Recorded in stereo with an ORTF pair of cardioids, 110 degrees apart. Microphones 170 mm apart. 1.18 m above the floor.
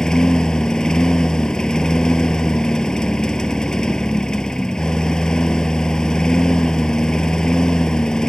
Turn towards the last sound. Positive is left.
turn(degrees=5)